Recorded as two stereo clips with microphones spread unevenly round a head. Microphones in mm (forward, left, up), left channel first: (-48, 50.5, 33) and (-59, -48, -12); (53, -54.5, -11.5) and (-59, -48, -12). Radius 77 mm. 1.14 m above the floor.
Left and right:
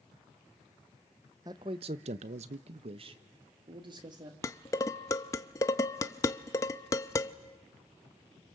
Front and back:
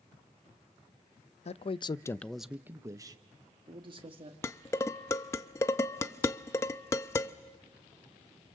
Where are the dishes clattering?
60° left, 0.5 m.